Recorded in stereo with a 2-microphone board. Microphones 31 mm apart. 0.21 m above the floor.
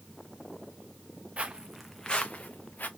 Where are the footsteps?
40° right (ahead or behind), 1.0 m; by 2.9 s 70° left (ahead or behind), 1.5 m.